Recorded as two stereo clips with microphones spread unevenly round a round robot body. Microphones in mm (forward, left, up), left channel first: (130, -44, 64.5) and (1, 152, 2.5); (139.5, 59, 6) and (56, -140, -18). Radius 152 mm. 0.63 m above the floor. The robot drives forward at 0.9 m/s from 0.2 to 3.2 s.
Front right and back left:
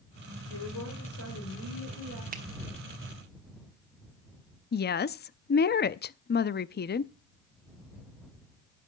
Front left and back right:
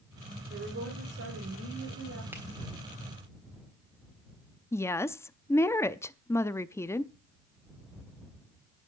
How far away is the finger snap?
About 1.0 m.